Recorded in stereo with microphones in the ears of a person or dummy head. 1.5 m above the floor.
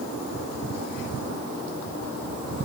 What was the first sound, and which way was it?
Only background noise.